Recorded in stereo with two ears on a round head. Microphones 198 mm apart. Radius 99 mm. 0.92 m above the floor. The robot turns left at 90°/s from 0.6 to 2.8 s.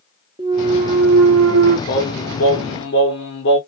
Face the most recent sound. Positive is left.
turn(degrees=60)